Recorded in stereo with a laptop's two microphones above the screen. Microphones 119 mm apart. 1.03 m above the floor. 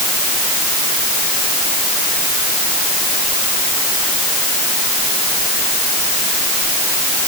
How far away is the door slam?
No door slam in this recording.